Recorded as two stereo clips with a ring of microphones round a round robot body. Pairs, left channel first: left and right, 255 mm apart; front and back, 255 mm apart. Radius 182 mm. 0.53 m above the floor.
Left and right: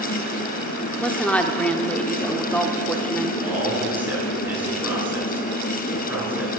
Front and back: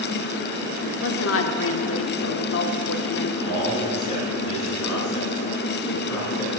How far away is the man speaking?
About 6 m.